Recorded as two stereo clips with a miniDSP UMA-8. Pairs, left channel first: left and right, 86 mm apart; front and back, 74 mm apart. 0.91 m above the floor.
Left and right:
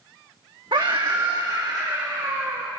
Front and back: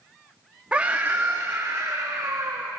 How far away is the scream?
About 1.2 m.